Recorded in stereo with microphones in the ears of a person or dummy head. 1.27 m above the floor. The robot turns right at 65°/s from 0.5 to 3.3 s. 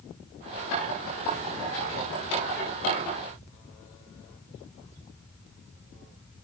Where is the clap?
I don't hear a clap.